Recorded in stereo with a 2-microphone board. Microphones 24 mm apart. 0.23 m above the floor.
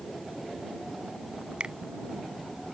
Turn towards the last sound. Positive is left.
turn(degrees=-50)  # may be behind; listen again after turning